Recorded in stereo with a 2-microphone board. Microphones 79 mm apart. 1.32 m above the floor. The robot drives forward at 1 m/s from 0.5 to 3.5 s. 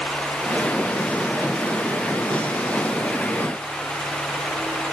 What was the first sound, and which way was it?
Only background noise.